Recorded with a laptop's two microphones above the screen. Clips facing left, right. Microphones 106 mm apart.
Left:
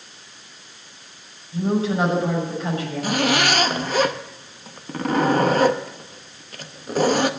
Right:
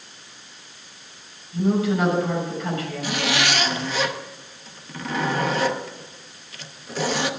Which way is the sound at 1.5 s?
30° left (ahead or behind).